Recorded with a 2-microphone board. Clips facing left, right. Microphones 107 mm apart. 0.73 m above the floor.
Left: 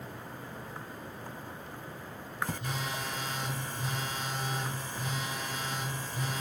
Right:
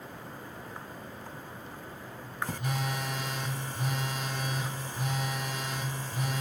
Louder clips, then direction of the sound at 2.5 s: Right 3 dB; 65° right (ahead or behind).